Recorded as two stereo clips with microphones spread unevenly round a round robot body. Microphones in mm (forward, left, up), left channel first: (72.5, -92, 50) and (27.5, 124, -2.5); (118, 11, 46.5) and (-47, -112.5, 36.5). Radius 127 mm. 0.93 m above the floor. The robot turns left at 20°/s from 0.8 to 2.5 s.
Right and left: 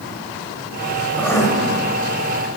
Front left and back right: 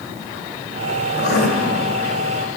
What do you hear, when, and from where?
1.2 s writing: straight ahead, 1.7 m; by 1.5 s 5° right, 1.7 m